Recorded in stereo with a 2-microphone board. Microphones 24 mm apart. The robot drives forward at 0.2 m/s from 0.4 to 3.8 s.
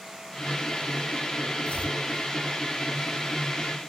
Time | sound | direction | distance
1.6 | chopping | 70° left (ahead or behind) | 2.5 m